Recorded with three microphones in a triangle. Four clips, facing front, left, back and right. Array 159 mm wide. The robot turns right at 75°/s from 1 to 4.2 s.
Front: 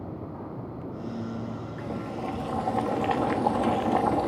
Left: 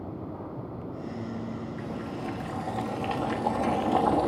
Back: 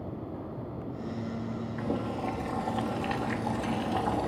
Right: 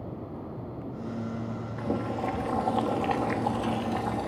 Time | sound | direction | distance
1.8 | boiling | 125° right | 1.7 m